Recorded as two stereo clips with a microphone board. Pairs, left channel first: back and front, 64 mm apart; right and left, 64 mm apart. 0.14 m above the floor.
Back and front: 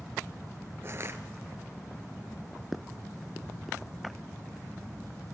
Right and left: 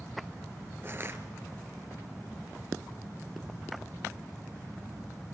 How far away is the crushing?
About 1.9 m.